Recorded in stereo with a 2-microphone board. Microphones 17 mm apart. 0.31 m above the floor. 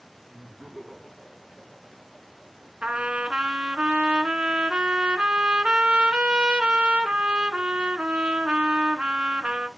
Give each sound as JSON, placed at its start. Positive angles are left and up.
{"t": 0.3, "sound": "laughter", "side_deg": -10, "distance_m": 3.5}
{"t": 2.8, "sound": "a trumpet", "side_deg": -80, "distance_m": 0.7}